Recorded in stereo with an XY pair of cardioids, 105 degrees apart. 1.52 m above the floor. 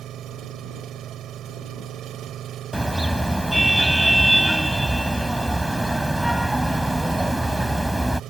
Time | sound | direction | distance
0.0 | an engine running | 65° right | ?
2.7 | a car horn | 5° right | ?